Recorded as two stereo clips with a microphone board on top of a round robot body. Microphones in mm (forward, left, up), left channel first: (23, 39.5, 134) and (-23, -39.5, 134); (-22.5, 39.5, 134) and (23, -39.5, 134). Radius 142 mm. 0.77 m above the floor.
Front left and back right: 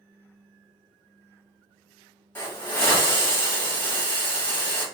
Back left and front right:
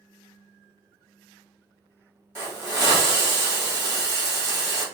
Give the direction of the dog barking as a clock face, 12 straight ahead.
No dog barking in this recording.